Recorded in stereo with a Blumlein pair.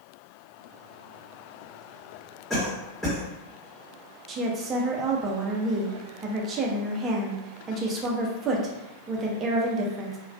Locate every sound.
2.5 s a cough: straight ahead, 0.9 m
4.3 s a woman speaking: 25° right, 0.6 m